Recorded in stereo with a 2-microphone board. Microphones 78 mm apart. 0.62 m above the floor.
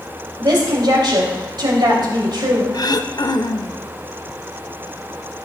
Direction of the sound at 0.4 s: 65° right (ahead or behind).